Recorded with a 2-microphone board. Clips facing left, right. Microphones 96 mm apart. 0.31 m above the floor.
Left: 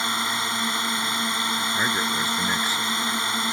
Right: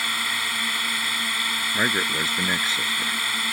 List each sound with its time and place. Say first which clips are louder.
0.0 s a drone: left 3 dB; 25° left (ahead or behind)
1.7 s a man speaking: right 3 dB; 25° right (ahead or behind)